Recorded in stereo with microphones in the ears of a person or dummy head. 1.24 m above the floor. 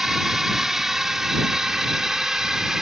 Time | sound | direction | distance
0.0 | a drone | centre (ahead or behind) | ?